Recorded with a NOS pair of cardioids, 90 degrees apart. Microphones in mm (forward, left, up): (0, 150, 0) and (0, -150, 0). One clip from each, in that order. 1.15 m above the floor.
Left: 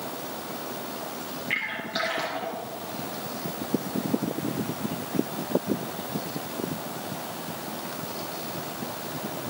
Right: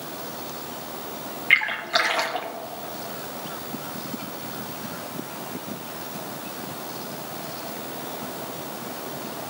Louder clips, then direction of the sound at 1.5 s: Right 10 dB; 60° right.